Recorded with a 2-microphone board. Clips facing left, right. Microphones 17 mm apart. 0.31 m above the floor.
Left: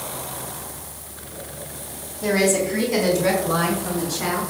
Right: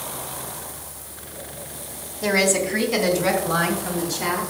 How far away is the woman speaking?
About 2.5 m.